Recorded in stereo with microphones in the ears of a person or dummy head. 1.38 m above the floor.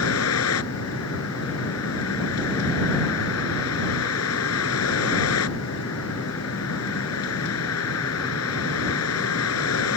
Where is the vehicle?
80° left.